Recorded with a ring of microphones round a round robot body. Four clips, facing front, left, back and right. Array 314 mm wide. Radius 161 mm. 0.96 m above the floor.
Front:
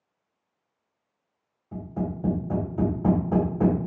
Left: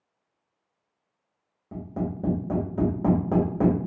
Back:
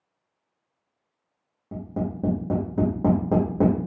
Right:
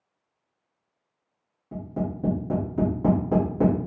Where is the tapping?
165° left, 1.6 m.